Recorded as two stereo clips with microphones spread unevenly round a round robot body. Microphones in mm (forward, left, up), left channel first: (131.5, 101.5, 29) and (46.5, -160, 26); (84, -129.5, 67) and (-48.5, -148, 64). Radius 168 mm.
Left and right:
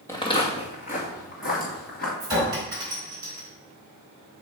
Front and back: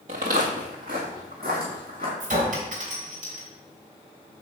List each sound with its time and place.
0.1 s footsteps: 155° left, 0.7 m; by 2.1 s 135° left, 3.5 m
2.2 s a clink: 175° left, 2.5 m